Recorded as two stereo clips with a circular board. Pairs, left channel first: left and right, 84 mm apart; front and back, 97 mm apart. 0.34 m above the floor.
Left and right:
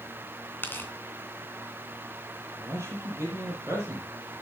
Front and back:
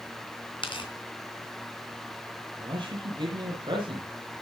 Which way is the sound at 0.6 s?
25° left.